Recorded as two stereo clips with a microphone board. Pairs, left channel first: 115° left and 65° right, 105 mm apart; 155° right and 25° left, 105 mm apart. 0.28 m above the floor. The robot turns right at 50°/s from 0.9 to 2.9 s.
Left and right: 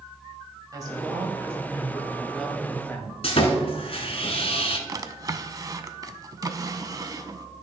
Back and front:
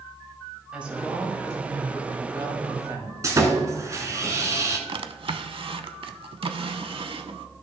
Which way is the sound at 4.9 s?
10° right.